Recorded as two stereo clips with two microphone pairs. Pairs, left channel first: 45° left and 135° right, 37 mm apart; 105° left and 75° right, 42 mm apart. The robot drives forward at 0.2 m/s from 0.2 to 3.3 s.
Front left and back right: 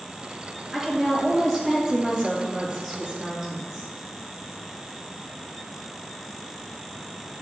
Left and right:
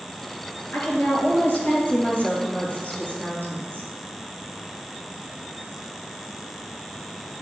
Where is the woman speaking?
140° left, 2.5 m; by 3.9 s 145° left, 3 m.